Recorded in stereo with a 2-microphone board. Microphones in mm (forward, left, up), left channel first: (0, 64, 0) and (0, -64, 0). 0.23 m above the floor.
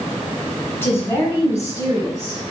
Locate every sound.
0.8 s a woman speaking: 20° left (ahead or behind), 1.3 m; by 2.4 s 25° left (ahead or behind), 2.5 m